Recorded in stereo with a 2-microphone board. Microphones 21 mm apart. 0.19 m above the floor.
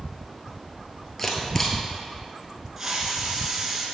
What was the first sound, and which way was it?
A camera shutter, 15° left (ahead or behind).